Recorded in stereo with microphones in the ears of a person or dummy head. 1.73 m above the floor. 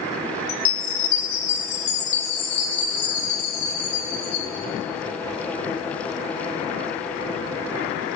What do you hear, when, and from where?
0.5 s a chime: 55° left (ahead or behind), 2.5 m